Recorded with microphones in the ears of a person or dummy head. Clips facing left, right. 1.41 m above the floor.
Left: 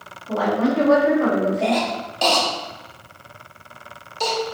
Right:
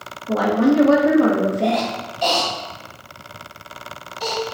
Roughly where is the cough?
Left.